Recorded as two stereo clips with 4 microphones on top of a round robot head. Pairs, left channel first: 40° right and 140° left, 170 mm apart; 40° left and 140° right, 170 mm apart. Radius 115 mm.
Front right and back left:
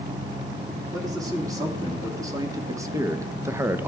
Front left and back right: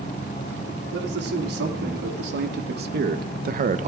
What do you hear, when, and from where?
0.9 s a man speaking: 150° right, 2.5 m